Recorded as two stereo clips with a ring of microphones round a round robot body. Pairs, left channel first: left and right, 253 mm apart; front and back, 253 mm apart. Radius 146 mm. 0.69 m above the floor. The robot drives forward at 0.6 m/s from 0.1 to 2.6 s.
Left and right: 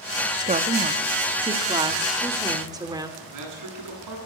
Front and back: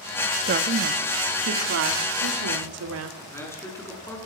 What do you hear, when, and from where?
0.4 s a woman speaking: 145° right, 1.4 m; by 3.1 s 165° right, 2.5 m
3.2 s a man speaking: 80° right, 9.5 m